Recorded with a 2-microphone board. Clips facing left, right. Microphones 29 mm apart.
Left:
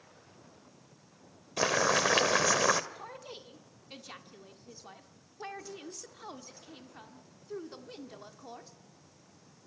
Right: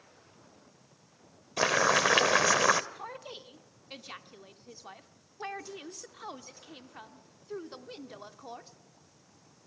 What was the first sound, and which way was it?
Boiling, 15° right (ahead or behind).